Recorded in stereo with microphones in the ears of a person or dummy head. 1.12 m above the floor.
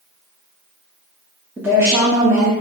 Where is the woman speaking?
5° right (ahead or behind), 0.6 m.